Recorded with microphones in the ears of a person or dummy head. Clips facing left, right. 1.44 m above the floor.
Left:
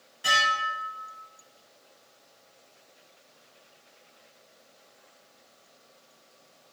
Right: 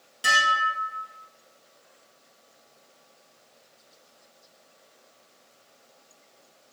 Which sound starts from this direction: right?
Dishes clattering, at 0.2 s.